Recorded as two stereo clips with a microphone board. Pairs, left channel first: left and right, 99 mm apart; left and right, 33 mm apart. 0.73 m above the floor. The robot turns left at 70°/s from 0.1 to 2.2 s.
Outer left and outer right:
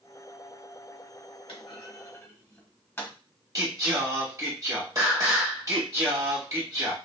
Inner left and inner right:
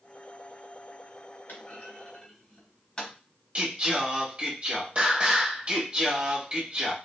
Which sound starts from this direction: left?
A clunk, at 1.5 s.